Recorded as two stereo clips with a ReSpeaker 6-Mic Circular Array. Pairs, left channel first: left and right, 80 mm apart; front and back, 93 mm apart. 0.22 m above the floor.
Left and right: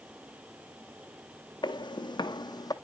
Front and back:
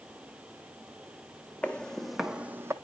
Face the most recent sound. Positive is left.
turn(degrees=120)